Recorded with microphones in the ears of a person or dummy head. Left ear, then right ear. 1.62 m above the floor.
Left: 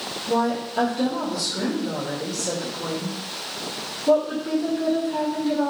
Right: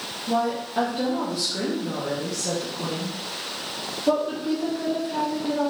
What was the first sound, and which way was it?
A woman speaking, 30° right (ahead or behind).